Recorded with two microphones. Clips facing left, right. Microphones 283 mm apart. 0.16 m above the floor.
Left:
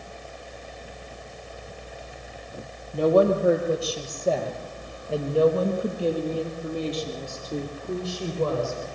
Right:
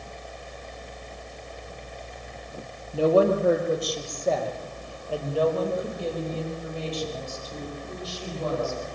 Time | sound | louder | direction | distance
2.9 | a woman speaking | left 1 dB | 5° right (ahead or behind) | 5 m